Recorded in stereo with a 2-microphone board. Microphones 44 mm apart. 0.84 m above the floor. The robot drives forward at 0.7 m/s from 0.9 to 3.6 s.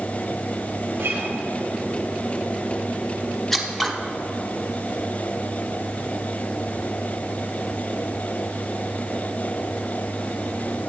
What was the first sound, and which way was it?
A guitar, 75° right (ahead or behind).